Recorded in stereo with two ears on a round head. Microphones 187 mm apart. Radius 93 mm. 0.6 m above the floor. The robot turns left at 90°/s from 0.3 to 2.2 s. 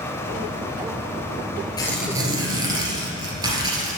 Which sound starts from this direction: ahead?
Tearing paper, at 1.8 s.